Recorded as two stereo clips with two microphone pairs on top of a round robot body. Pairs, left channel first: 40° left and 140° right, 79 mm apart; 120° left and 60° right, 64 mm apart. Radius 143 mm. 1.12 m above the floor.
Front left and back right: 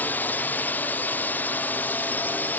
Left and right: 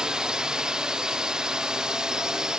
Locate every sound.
0.0 s a drone: 5° left